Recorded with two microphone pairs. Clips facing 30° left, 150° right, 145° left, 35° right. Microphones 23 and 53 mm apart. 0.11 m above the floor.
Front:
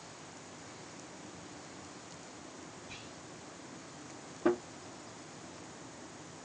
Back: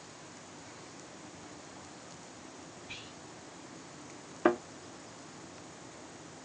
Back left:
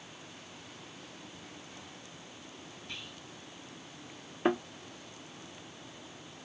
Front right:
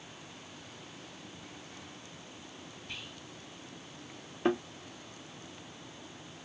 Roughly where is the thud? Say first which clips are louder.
Back 3 dB, even; behind right.